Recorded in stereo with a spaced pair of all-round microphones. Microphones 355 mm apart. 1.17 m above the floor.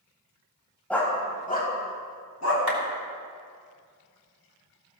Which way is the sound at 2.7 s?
80° left.